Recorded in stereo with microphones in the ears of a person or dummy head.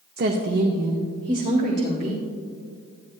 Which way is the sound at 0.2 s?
50° right (ahead or behind).